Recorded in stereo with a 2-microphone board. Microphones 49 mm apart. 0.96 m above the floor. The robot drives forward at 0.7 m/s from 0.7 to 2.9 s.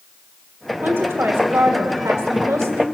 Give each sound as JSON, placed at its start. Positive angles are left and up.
{"t": 0.8, "sound": "a woman speaking", "side_deg": -50, "distance_m": 1.9}